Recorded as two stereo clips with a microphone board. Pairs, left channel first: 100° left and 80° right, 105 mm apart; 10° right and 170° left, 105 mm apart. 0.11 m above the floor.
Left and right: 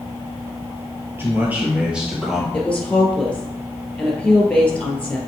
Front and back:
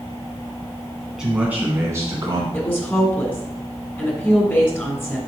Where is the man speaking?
115° right, 1.2 m; by 2.4 s 165° right, 1.5 m.